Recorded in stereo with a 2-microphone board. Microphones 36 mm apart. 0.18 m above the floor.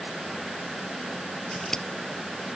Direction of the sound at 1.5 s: 15° left (ahead or behind).